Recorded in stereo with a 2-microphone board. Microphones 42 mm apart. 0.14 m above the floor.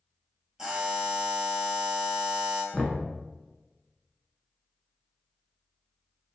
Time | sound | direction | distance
0.6 | a buzzer | 10° right (ahead or behind) | 0.9 m
2.7 | knocking | 20° left (ahead or behind) | 0.8 m